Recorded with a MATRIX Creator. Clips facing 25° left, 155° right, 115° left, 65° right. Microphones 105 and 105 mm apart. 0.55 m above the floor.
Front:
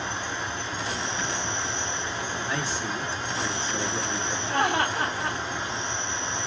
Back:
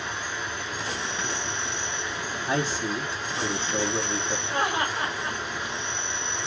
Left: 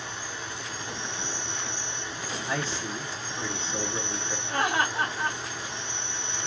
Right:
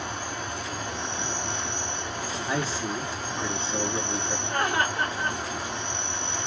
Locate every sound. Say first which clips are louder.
0.0 s an insect: front 1 dB, right 5 dB; 35° right, 1.3 m
2.5 s a man speaking: back 7 dB, right 3 dB; 130° right, 0.8 m
4.5 s laughter: front 3 dB, even; 25° left, 2.5 m